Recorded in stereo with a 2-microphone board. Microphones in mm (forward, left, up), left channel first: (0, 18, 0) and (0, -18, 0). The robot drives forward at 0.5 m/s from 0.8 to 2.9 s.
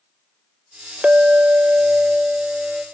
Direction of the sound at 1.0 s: 30° right (ahead or behind).